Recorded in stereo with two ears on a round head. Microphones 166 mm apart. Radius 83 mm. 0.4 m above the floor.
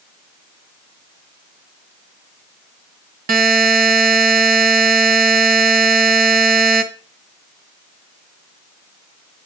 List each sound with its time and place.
3.3 s a buzzer: 50° right (ahead or behind), 2 m